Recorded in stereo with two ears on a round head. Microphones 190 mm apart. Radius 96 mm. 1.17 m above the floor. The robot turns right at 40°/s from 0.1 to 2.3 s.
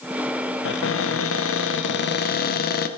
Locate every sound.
0.7 s a cupboard door: 65° left, 0.8 m; by 2.9 s 130° left, 0.8 m